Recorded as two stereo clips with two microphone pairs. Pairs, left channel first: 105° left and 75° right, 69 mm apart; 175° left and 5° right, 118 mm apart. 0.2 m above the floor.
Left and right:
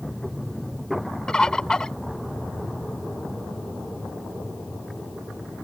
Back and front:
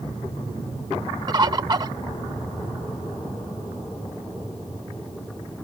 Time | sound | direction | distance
1.3 | a bird | 30° left | ?